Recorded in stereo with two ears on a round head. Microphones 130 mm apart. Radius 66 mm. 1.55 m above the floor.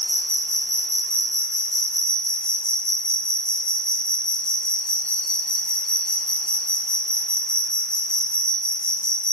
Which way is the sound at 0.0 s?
5° left (ahead or behind).